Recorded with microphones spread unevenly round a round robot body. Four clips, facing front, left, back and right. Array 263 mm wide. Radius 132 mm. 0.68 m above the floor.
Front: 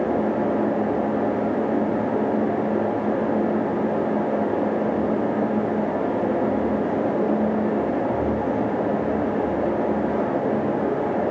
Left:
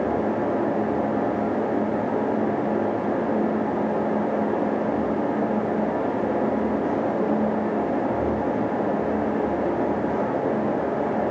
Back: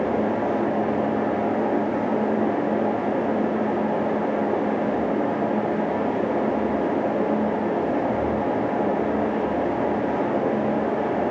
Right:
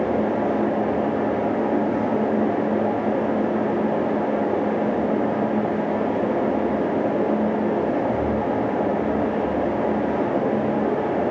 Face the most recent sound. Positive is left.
No sound to turn to.